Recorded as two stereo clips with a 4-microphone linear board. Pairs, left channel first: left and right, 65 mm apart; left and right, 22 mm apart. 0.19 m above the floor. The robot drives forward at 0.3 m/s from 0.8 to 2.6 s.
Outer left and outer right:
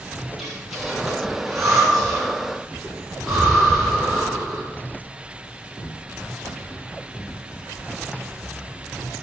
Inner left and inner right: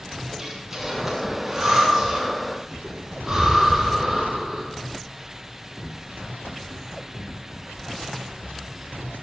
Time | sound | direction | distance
0.3 | breathing | 5° right (ahead or behind) | 5 m